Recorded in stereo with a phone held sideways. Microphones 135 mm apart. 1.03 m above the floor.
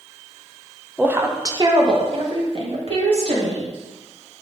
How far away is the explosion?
I don't hear an explosion.